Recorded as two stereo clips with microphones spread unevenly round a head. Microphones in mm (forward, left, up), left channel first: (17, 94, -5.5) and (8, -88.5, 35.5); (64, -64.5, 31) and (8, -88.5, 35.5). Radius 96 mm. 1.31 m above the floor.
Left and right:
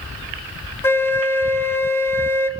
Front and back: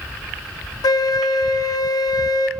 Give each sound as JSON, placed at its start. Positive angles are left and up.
{"t": 0.8, "sound": "a flute", "azimuth_deg": 10, "distance_m": 0.6}